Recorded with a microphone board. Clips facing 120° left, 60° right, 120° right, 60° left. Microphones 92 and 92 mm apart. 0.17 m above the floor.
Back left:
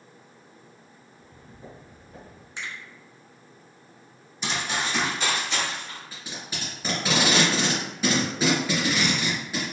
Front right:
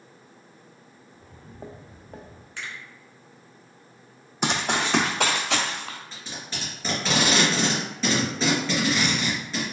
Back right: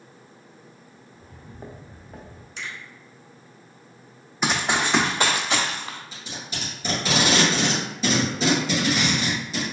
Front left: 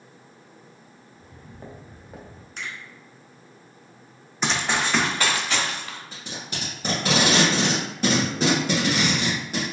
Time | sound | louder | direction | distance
1.1 | footsteps | front right 5 dB, back right 2 dB | 65° right | 0.9 m
2.6 | a finger snap | back left 1 dB, front left 1 dB | 55° left | 1.2 m
4.4 | running footsteps | front right 4 dB, back right 1 dB | 35° right | 0.5 m
6.1 | tape being pulled | even, front left 1 dB | 40° left | 1.8 m